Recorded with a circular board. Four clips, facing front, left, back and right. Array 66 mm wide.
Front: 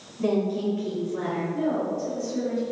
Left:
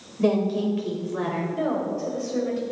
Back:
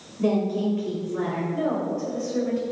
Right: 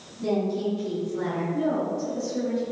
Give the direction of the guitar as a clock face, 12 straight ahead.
I don't hear a guitar.